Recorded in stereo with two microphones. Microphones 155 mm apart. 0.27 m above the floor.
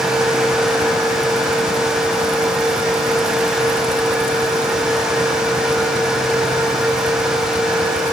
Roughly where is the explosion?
No explosion in this recording.